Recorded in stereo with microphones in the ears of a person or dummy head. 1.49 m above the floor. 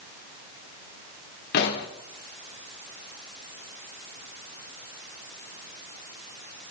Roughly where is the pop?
Left.